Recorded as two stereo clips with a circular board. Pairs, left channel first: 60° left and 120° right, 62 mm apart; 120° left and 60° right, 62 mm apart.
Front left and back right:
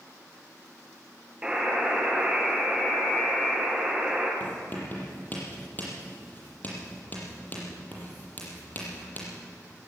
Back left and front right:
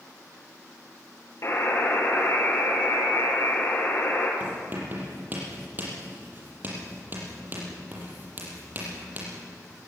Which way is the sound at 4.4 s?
Straight ahead.